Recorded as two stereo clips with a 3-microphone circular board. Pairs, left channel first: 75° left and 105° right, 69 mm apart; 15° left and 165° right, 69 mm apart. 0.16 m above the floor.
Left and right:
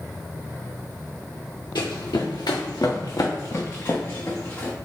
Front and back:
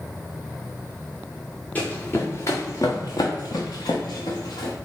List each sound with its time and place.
1.8 s running footsteps: 80° left, 1.0 m; by 4.7 s 10° left, 1.5 m